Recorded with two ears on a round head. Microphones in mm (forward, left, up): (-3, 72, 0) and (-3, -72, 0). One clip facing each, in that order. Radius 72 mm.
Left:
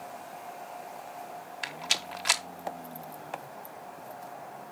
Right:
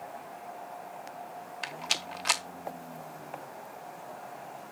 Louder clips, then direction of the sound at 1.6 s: Even; 5° left (ahead or behind).